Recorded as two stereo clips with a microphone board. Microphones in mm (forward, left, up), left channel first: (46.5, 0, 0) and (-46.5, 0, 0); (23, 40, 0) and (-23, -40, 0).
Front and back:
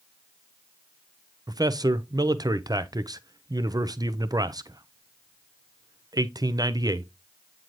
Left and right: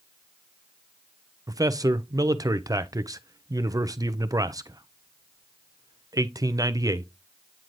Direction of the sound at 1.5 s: 155° right.